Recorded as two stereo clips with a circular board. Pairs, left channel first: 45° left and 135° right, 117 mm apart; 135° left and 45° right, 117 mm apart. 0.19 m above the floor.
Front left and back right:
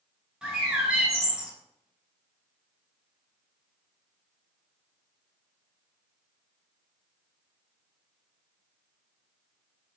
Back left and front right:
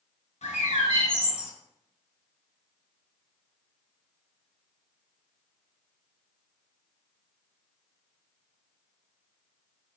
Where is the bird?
145° left, 1.6 m.